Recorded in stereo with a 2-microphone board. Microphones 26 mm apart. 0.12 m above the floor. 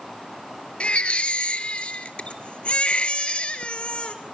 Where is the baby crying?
50° left (ahead or behind), 1.6 m.